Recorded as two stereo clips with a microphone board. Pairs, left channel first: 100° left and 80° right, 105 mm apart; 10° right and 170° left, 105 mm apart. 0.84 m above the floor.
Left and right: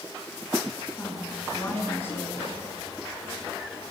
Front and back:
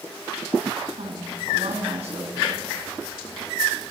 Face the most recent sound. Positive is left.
turn(degrees=170)